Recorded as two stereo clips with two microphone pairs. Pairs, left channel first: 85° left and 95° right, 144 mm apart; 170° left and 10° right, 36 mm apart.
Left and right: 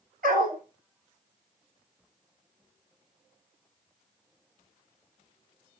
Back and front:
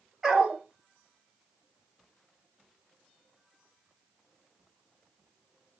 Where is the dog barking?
85° right, 2.5 m.